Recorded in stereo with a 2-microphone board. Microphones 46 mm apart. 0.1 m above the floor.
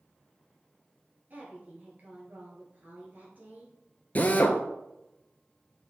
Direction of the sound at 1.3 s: 40° right (ahead or behind).